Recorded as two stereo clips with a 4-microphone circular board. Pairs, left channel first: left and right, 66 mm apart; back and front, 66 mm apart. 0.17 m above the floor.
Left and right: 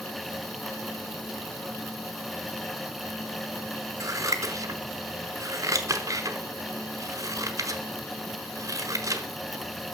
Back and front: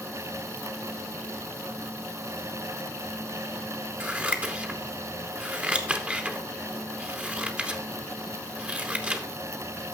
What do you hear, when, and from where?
4.0 s scissors: 65° right, 0.9 m